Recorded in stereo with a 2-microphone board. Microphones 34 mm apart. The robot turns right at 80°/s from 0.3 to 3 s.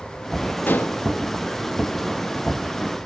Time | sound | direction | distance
0.7 | dishes clattering | 75° left (ahead or behind) | 0.5 m